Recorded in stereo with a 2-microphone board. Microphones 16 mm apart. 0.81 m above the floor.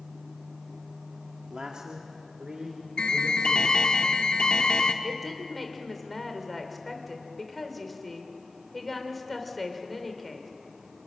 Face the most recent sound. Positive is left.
turn(degrees=5)  # may be behind; listen again after turning